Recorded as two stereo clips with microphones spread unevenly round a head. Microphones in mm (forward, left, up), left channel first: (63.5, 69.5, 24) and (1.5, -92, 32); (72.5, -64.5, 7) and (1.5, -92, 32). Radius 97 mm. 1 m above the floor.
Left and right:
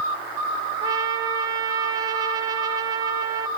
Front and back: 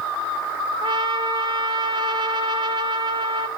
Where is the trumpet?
175° right, 1.4 m.